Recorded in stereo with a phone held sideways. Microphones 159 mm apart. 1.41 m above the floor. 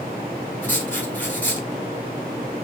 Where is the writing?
10° left (ahead or behind), 1.6 m.